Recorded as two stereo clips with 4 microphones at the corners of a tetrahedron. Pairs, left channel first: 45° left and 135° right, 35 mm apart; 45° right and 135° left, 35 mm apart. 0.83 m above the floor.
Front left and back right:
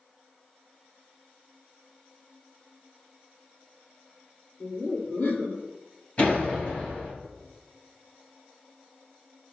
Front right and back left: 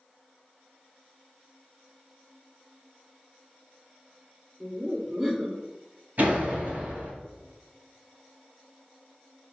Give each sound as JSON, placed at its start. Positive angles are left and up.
{"t": 4.6, "sound": "laughter", "azimuth_deg": 65, "distance_m": 3.0}
{"t": 6.2, "sound": "a door slam", "azimuth_deg": 100, "distance_m": 4.0}